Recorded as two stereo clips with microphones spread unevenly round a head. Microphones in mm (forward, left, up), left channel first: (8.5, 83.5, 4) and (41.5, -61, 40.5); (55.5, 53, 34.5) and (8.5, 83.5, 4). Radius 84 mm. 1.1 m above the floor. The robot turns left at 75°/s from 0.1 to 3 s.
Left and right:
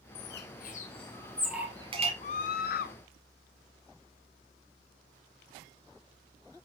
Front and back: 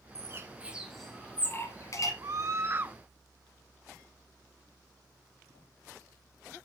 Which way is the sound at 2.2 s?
145° left.